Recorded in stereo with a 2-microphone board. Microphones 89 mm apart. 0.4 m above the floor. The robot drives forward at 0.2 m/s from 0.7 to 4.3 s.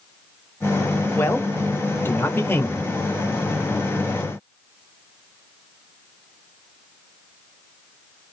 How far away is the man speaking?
About 1.3 m.